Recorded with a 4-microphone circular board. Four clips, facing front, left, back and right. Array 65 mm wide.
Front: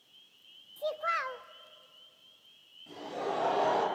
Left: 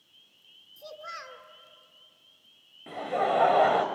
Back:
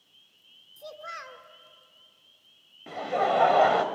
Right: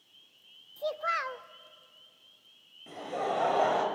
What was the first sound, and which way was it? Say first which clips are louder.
A child speaking: right 10 dB, front 8 dB; 50° right.